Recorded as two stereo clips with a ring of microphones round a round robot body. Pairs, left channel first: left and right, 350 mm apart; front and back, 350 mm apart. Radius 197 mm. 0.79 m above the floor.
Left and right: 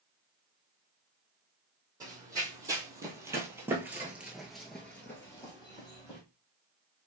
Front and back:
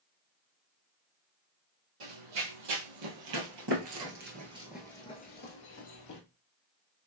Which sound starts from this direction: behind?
Running footsteps, at 2.0 s.